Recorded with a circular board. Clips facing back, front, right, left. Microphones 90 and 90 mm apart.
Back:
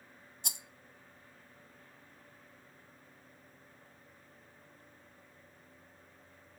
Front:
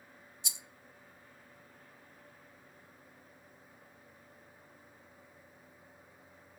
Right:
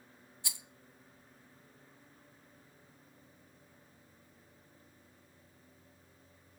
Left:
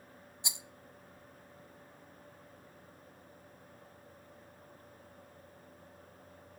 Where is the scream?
I don't hear a scream.